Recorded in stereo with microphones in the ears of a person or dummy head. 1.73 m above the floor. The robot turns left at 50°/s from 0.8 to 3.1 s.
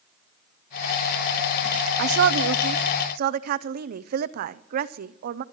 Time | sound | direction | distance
2.0 | a woman speaking | 75° right | 0.6 m